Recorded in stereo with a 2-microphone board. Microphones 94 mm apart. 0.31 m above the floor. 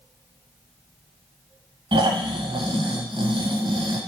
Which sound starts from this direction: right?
Snoring, at 1.9 s.